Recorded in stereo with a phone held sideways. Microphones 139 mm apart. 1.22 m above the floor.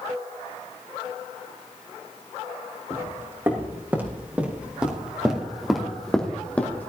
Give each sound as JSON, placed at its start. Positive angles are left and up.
{"t": 2.9, "sound": "footsteps", "side_deg": -20, "distance_m": 3.5}